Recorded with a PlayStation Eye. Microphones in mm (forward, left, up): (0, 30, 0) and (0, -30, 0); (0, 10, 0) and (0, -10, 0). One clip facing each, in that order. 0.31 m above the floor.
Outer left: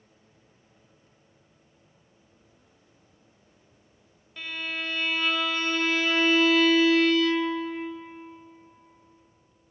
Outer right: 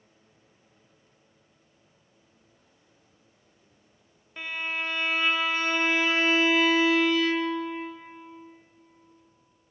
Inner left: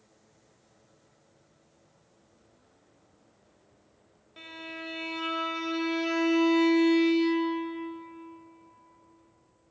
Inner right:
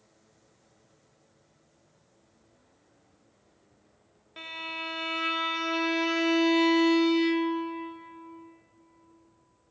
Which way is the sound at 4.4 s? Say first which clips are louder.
Outer right 2 dB, inner right 5 dB; 25° right (ahead or behind).